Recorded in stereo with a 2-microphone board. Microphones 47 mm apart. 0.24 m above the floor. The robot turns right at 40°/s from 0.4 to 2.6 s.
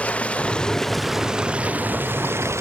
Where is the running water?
155° left; by 2.6 s 120° right.